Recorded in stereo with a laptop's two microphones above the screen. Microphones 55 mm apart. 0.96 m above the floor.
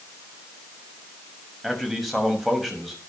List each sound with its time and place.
1.6 s a man speaking: centre (ahead or behind), 6.5 m